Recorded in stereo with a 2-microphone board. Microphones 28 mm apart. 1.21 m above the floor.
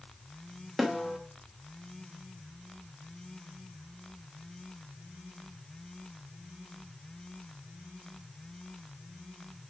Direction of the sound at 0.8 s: Centre (ahead or behind).